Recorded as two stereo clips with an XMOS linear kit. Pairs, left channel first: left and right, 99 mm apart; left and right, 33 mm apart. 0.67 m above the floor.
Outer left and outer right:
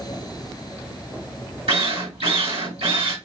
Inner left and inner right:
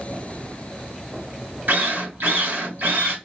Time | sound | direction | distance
1.7 | a drill | 90° right | 2 m